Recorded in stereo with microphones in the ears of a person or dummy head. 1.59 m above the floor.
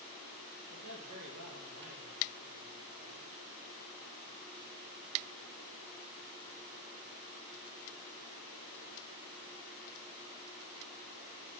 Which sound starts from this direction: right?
A man speaking, at 0.7 s.